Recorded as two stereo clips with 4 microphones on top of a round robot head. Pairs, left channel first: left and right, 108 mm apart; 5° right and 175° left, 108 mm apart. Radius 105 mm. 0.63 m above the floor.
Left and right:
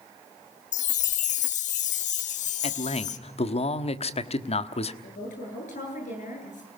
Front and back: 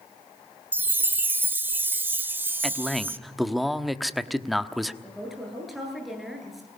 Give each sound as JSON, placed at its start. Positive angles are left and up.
{"t": 0.7, "sound": "a chime", "azimuth_deg": 100, "distance_m": 0.6}
{"t": 2.6, "sound": "a man speaking", "azimuth_deg": 85, "distance_m": 1.3}
{"t": 5.0, "sound": "a woman speaking", "azimuth_deg": 85, "distance_m": 10.0}